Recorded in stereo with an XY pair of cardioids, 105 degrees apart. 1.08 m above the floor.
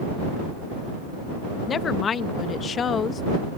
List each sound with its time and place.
1.7 s a woman speaking: 50° left